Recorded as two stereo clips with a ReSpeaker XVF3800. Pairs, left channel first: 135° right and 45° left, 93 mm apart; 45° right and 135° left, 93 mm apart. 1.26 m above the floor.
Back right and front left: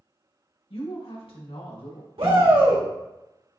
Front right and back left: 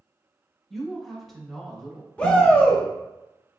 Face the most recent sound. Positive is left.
turn(degrees=30)